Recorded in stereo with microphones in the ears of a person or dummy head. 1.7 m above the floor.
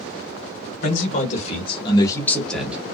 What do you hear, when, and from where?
0.8 s a man speaking: 50° left (ahead or behind), 1.3 m; by 2.8 s 10° right (ahead or behind), 0.9 m